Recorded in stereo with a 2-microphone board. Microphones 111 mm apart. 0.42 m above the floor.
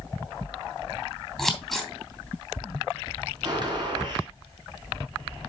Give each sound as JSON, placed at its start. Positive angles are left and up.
{"t": 1.4, "sound": "scissors", "side_deg": 0, "distance_m": 3.0}
{"t": 3.4, "sound": "a gunshot", "side_deg": -40, "distance_m": 3.0}